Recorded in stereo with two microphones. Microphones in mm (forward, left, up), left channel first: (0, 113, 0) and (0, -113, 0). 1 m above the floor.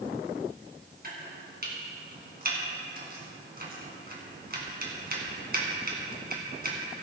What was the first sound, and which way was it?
Chopping, 45° right (ahead or behind).